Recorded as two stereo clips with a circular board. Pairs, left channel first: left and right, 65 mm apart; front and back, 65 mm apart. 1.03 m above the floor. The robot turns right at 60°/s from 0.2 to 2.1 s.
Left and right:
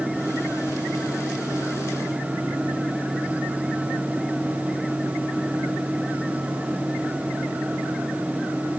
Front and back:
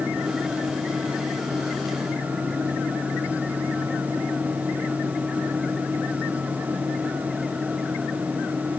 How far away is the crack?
I don't hear a crack.